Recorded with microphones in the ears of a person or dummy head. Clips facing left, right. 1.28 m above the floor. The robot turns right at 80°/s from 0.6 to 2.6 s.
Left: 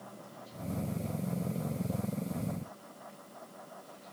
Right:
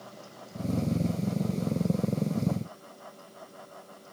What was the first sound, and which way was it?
Only background noise.